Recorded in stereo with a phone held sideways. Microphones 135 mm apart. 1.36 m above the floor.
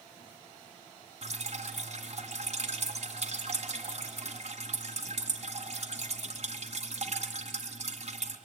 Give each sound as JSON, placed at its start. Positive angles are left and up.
{"t": 1.2, "sound": "dripping", "side_deg": -50, "distance_m": 2.0}